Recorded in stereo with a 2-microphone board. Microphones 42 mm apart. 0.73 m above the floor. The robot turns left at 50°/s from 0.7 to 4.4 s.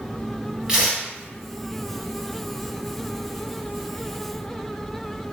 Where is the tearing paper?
20° right (ahead or behind), 2 m; by 1.1 s 40° right (ahead or behind), 2 m.